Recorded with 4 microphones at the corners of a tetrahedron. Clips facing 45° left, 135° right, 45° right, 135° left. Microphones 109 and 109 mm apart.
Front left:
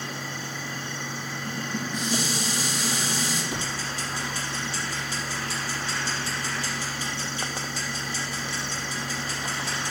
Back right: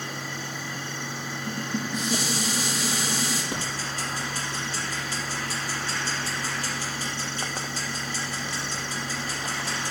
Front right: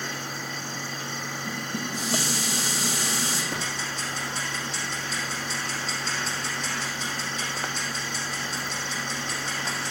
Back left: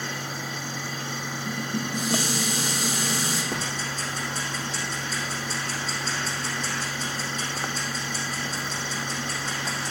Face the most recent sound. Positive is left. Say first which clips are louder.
# even, back left 1 dB
turn(degrees=180)